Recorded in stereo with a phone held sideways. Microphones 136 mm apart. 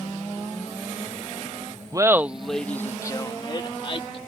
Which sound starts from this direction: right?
Laughter, at 1.9 s.